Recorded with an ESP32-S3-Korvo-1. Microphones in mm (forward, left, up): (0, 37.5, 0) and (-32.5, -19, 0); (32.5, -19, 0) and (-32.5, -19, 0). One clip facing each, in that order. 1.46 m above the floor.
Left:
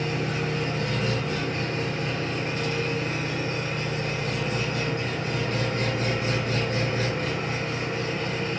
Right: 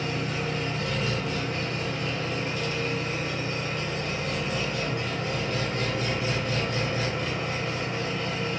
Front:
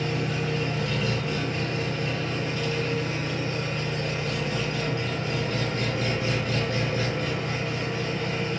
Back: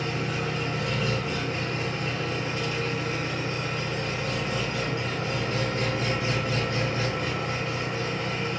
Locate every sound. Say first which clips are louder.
0.0 s an engine running: left 2 dB, front 1 dB; 115° left, 1.2 m